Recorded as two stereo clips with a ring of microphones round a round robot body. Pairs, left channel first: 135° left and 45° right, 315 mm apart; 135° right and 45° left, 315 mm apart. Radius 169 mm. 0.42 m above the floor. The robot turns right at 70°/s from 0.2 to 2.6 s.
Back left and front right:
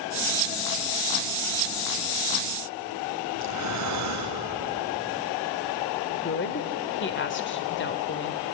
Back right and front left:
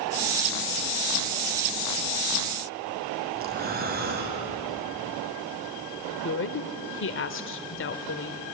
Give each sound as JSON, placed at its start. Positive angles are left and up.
{"t": 3.4, "sound": "breathing", "azimuth_deg": -15, "distance_m": 3.0}
{"t": 6.1, "sound": "a woman speaking", "azimuth_deg": 180, "distance_m": 1.3}